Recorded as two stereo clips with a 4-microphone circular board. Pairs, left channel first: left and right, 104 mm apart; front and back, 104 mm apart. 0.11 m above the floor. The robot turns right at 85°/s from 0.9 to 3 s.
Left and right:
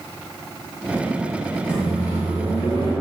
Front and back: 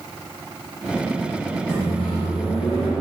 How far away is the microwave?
About 1.7 m.